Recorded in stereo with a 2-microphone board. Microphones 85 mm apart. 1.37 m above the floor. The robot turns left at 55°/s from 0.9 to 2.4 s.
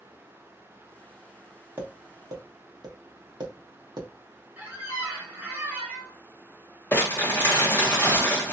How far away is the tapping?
About 1.0 m.